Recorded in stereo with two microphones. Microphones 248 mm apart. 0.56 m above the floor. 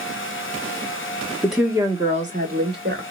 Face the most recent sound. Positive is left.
turn(degrees=-50)  # may be behind; listen again after turning